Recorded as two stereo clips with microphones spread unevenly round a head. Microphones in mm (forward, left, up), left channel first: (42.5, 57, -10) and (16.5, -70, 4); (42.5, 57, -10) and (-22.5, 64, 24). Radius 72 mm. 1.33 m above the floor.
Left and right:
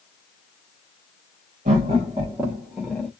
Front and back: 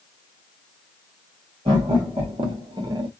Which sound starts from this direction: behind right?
Laughter, at 1.6 s.